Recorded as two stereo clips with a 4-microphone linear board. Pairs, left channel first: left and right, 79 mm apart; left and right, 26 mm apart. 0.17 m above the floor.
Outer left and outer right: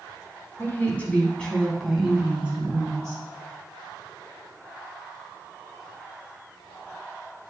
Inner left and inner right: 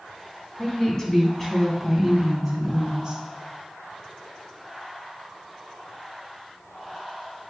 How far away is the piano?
I don't hear a piano.